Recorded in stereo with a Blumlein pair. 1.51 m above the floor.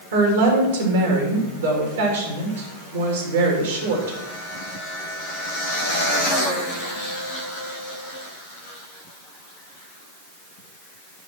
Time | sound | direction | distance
0.1 | a woman speaking | 65° right | 3 m